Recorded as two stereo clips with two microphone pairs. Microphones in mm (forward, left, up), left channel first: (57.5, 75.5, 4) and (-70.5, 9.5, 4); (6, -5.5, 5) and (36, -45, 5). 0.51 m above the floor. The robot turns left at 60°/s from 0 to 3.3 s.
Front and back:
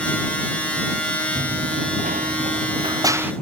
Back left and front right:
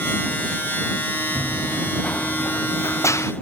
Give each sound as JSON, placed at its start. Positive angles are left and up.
{"t": 1.4, "sound": "running footsteps", "azimuth_deg": -140}